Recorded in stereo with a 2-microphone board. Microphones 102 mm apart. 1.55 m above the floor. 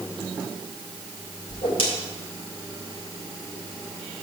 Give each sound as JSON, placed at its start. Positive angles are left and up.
{"t": 1.5, "sound": "a whoosh", "side_deg": 60, "distance_m": 2.5}